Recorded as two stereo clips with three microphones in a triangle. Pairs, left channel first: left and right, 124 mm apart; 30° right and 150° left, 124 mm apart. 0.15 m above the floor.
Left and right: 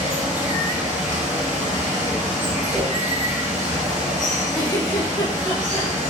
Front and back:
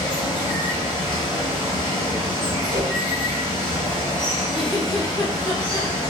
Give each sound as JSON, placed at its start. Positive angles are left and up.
{"t": 0.0, "sound": "running water", "azimuth_deg": -80, "distance_m": 1.4}
{"t": 2.7, "sound": "a whoosh", "azimuth_deg": 160, "distance_m": 1.0}
{"t": 4.5, "sound": "a giggle", "azimuth_deg": 30, "distance_m": 1.3}